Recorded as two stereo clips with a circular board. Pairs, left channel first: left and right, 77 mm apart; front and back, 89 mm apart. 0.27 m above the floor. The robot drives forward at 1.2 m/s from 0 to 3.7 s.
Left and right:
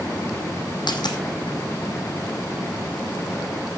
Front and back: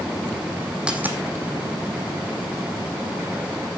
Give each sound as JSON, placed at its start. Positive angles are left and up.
{"t": 0.9, "sound": "a dropped coin", "azimuth_deg": 100, "distance_m": 1.4}